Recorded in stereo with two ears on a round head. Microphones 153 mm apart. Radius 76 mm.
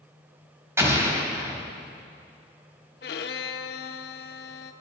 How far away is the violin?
About 0.7 m.